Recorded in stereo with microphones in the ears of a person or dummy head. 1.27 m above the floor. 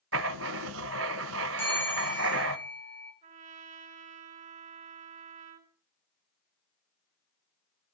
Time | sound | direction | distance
0.1 | writing | 75° right (ahead or behind) | 0.8 m
1.6 | a bell | 10° left (ahead or behind) | 8.5 m
3.2 | a trumpet | 40° right (ahead or behind) | 3.5 m